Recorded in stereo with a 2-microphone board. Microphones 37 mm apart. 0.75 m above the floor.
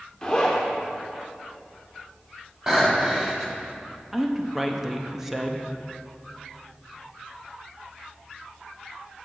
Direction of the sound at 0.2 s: 20° left (ahead or behind).